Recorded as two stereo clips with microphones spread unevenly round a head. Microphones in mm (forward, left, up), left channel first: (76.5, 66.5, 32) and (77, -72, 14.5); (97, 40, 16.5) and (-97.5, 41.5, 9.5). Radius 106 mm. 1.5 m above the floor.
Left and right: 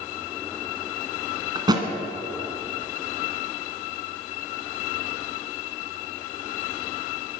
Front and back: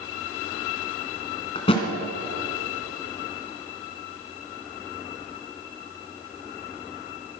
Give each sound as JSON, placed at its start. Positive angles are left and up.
{"t": 1.6, "sound": "a thud", "azimuth_deg": -40, "distance_m": 1.7}